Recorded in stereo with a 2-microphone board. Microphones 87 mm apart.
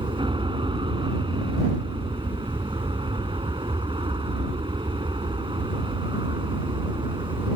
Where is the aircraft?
70° right (ahead or behind).